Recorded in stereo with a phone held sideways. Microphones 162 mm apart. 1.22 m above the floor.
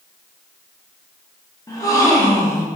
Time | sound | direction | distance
1.7 | a gasp | 20° left (ahead or behind) | 0.5 m